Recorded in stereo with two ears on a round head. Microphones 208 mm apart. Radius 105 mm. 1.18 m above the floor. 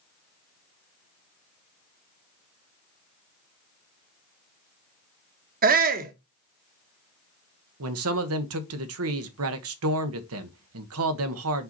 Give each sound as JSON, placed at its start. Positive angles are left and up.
{"t": 5.6, "sound": "a shout", "side_deg": -40, "distance_m": 1.2}
{"t": 7.8, "sound": "a man speaking", "side_deg": -70, "distance_m": 1.2}